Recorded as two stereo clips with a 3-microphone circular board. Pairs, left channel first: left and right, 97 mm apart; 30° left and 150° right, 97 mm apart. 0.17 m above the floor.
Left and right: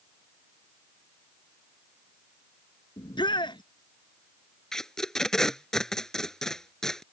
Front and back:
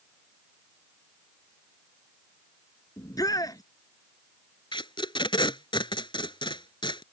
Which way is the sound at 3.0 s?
70° left.